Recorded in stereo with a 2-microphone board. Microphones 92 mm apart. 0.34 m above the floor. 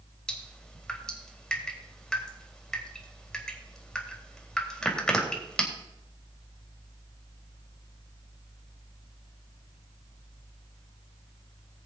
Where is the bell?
I don't hear a bell.